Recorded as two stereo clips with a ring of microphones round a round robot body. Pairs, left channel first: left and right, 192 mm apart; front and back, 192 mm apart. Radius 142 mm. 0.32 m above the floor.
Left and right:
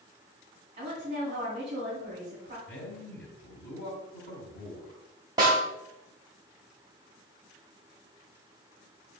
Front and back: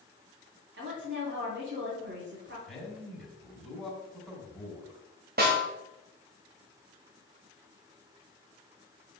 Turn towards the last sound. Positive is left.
turn(degrees=-160)